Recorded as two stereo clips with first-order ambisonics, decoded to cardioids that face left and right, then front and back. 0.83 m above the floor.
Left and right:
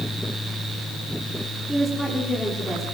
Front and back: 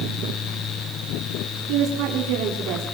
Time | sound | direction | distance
1.7 | a woman speaking | 175° right | 1.7 m